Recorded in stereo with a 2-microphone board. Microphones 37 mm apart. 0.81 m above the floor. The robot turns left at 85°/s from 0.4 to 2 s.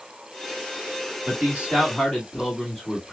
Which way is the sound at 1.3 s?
120° right.